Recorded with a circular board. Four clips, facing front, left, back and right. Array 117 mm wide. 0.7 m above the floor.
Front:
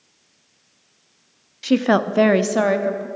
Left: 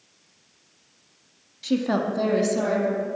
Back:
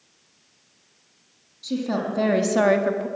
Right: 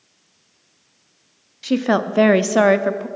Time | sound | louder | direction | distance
1.6 | a woman speaking | right 5 dB, front 8 dB | 20° right | 1.0 m